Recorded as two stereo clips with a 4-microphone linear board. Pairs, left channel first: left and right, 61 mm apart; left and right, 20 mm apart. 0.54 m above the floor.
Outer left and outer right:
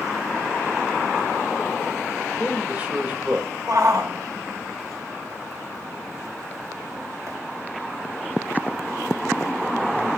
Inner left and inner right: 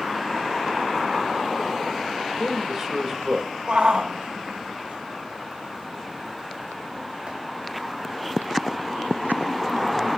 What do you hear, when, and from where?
2.3 s a man speaking: 25° right (ahead or behind), 3 m
3.7 s a shout: 65° right (ahead or behind), 2.5 m